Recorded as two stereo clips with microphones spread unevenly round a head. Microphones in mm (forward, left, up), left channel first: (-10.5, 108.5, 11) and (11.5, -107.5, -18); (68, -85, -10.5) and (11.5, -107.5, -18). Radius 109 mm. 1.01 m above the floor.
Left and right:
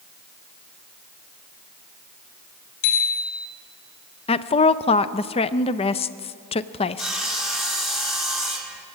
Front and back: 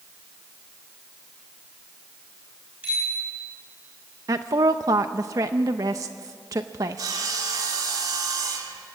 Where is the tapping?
No tapping in this recording.